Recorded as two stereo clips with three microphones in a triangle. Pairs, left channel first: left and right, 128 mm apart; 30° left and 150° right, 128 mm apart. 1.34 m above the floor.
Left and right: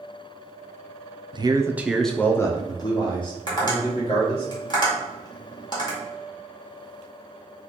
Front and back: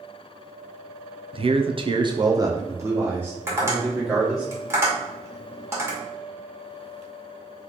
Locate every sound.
1.3 s a man speaking: 125° right, 0.6 m; by 4.5 s 130° left, 1.8 m
3.5 s tapping: 140° left, 2 m